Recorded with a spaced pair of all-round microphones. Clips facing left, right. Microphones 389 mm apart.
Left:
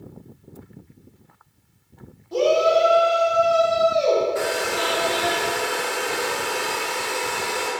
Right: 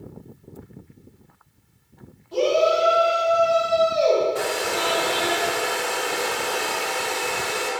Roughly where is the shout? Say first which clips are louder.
Left 1 dB; left.